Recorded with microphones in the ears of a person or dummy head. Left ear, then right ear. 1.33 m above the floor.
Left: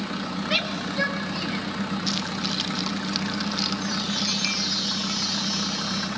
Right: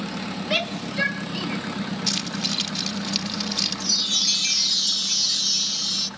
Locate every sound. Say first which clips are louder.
0.5 s a shout: even; centre (ahead or behind), 3.5 m; by 1.6 s 15° right (ahead or behind), 3 m
2.1 s keys jangling: right 4 dB; 15° right (ahead or behind), 1.2 m
3.8 s a chime: right 5 dB; 35° right (ahead or behind), 0.6 m